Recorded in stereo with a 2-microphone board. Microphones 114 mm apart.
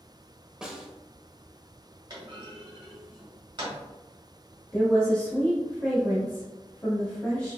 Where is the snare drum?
5° right (ahead or behind), 0.7 m.